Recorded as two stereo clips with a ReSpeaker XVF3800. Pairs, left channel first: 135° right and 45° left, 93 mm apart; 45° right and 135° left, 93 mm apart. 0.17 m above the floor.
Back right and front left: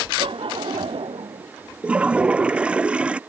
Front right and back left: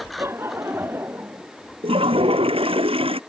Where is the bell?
I don't hear a bell.